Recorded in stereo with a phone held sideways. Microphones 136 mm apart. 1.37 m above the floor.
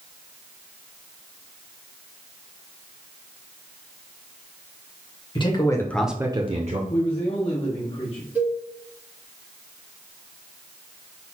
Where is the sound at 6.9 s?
40° left (ahead or behind), 0.9 m.